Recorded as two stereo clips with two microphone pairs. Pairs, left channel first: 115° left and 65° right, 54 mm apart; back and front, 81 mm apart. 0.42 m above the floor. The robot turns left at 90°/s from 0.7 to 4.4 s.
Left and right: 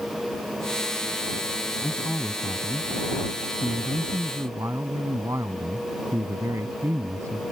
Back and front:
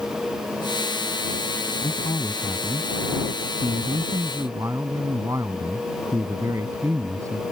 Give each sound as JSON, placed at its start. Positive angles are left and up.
{"t": 1.8, "sound": "a man speaking", "azimuth_deg": -175}